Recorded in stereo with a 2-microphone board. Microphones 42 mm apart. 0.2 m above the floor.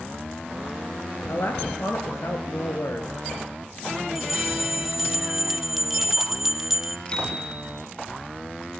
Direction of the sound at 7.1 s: 20° left (ahead or behind).